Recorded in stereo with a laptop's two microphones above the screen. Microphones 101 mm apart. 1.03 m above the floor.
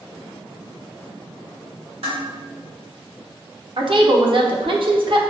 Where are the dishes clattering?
80° right, 1.9 m.